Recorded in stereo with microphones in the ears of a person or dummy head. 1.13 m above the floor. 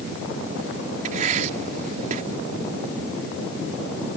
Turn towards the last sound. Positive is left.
turn(degrees=-45)  # may be behind; listen again after turning